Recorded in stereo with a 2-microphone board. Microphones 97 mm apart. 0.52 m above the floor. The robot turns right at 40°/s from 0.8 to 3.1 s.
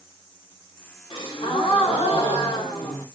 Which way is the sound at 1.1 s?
65° left.